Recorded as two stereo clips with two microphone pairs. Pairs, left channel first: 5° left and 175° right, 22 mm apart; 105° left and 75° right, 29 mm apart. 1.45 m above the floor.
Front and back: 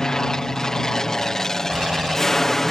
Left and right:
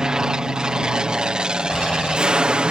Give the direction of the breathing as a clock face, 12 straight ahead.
7 o'clock.